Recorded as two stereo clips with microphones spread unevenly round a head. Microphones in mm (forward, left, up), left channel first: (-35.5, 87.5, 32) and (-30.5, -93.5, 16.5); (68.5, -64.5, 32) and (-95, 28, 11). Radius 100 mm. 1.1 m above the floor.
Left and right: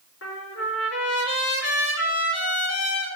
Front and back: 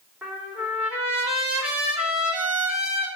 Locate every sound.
0.2 s a trumpet: 65° left, 2.5 m